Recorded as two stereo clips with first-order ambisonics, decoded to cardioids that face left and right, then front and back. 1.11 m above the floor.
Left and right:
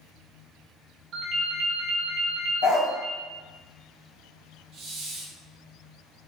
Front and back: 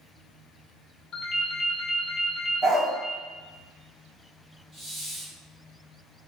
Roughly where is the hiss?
Behind right.